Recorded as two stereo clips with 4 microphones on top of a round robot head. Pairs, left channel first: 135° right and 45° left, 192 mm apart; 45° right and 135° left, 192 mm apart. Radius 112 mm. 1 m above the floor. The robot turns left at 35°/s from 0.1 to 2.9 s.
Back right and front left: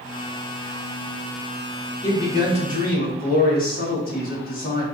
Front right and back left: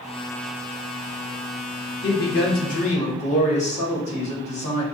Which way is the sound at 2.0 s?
65° right.